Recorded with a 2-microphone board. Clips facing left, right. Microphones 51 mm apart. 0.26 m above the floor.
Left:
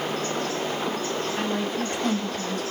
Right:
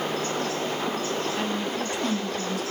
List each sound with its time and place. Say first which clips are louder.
1.4 s a woman speaking: left 1 dB; 45° left (ahead or behind), 2 m